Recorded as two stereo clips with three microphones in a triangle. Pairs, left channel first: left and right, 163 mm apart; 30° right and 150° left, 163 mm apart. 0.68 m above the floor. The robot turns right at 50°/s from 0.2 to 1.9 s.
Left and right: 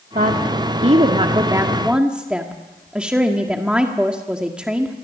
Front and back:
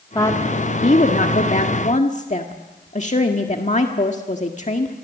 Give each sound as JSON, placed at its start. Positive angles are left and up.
{"t": 0.1, "sound": "a woman speaking", "azimuth_deg": -90, "distance_m": 1.7}